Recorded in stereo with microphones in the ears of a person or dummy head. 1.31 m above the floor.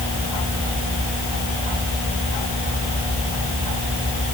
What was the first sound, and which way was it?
Only background noise.